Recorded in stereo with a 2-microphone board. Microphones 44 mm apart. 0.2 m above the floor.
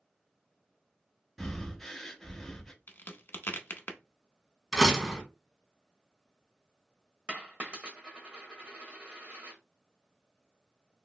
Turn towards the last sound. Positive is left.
turn(degrees=-25)  # may be behind; listen again after turning